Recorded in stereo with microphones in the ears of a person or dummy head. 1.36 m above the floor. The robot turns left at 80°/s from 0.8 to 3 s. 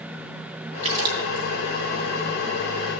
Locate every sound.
0.8 s a splash: 35° right (ahead or behind), 3 m; by 1.5 s 70° right (ahead or behind), 3 m